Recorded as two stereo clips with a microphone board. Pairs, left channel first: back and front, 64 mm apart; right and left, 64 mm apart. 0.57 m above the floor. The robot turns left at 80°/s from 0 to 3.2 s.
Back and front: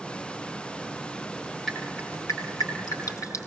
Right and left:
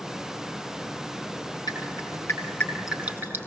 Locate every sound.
1.7 s dripping: 90° right, 5.5 m; by 3.5 s 145° left, 5.5 m